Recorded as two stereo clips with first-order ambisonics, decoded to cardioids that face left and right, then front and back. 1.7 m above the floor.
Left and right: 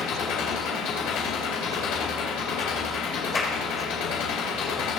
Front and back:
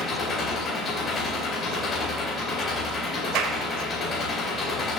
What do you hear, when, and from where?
0.0 s an engine running: 60° left, 3.5 m
3.4 s a clap: 160° left, 2 m